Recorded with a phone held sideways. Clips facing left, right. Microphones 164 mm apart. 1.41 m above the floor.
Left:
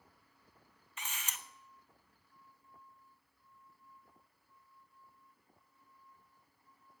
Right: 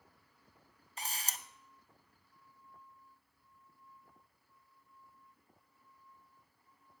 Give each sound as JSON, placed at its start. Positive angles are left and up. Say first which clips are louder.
{"t": 1.0, "sound": "a camera shutter", "louder": "right 2 dB", "side_deg": -35, "distance_m": 0.6}